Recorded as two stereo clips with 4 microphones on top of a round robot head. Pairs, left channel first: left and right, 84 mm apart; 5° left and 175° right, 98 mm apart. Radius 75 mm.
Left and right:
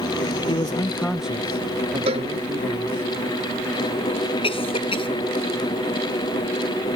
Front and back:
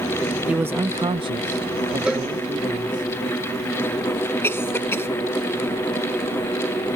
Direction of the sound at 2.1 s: 95° right.